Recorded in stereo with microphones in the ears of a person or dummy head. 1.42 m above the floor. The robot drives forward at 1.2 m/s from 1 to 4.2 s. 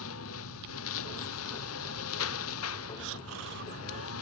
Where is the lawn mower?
80° left; by 4.2 s 85° left.